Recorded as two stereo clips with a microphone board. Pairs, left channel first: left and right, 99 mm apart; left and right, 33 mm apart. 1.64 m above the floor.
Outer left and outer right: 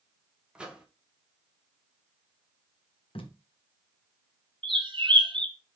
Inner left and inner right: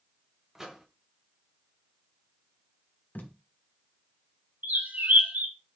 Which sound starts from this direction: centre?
A microwave, at 0.6 s.